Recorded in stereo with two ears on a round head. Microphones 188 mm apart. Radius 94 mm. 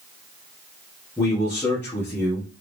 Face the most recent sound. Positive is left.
turn(degrees=10)  # may be behind; listen again after turning